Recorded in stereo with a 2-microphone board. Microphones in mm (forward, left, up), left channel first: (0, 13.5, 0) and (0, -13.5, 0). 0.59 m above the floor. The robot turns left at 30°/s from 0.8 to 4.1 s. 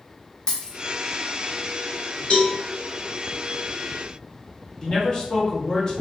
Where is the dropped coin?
30° left (ahead or behind), 1.1 m.